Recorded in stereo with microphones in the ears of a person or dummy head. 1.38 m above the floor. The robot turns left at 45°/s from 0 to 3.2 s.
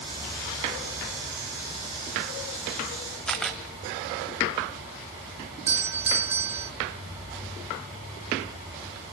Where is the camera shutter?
5° left (ahead or behind), 1.6 m.